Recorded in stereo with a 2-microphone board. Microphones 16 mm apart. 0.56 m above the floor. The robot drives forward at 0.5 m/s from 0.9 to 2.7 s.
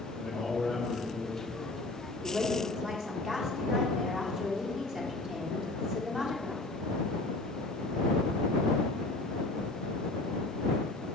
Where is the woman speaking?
45° right (ahead or behind), 1.4 m.